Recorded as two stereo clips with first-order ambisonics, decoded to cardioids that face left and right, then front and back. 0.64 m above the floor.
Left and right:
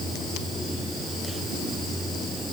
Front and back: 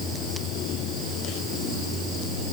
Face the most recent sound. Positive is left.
No sound to turn to.